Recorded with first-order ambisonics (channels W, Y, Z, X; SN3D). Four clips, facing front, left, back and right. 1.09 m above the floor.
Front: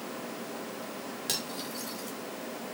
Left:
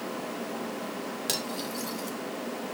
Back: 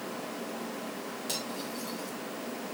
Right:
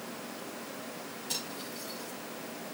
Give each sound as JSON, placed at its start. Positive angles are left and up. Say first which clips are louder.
{"t": 1.3, "sound": "cutlery clinking", "louder": "left 5 dB, front 2 dB", "azimuth_deg": 65, "distance_m": 2.0}